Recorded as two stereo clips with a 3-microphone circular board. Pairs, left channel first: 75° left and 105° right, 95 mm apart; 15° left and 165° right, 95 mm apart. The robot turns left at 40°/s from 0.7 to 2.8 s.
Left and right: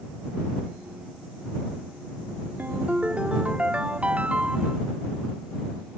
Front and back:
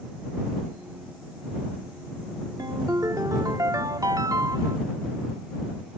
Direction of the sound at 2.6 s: 165° right.